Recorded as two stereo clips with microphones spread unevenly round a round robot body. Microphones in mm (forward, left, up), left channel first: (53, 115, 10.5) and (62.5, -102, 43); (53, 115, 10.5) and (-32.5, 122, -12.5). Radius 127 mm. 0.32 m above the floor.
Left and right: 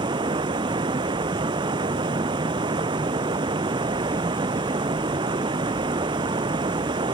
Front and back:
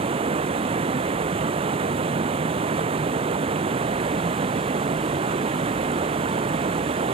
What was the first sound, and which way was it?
Running water, 160° right.